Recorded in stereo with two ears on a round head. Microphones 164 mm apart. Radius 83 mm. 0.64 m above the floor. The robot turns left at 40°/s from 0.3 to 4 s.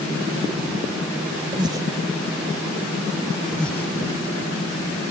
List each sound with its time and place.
1.5 s breathing: 30° right (ahead or behind); by 1.9 s 15° right (ahead or behind)
3.5 s breathing: centre (ahead or behind); by 3.9 s 15° left (ahead or behind)